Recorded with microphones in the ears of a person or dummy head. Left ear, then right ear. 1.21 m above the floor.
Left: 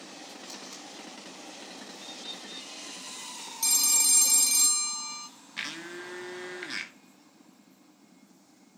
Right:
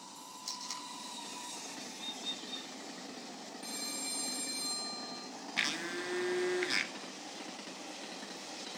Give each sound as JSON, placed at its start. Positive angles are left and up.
{"t": 0.5, "sound": "tape being pulled", "side_deg": -85, "distance_m": 4.5}
{"t": 1.9, "sound": "a bird", "side_deg": -55, "distance_m": 7.0}
{"t": 3.6, "sound": "a phone ringing", "side_deg": 80, "distance_m": 1.1}
{"t": 5.6, "sound": "a blender", "side_deg": -15, "distance_m": 1.0}